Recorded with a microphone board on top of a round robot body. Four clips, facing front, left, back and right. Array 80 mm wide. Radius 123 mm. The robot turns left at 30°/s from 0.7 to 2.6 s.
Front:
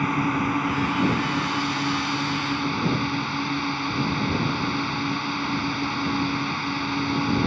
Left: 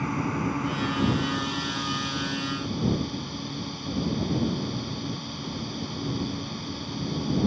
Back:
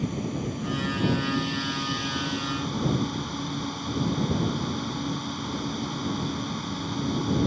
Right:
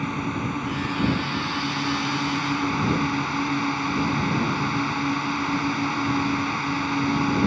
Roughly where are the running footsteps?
No running footsteps in this recording.